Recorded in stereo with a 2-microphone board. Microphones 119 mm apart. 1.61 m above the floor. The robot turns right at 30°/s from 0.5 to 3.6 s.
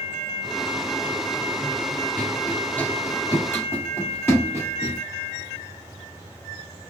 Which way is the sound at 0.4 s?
25° right (ahead or behind).